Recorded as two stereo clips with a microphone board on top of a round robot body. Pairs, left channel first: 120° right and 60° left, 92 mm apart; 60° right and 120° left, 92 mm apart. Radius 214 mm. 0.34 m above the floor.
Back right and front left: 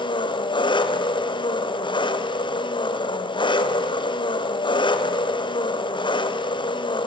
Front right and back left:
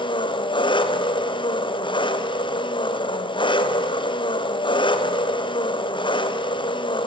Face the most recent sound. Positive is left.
turn(degrees=-90)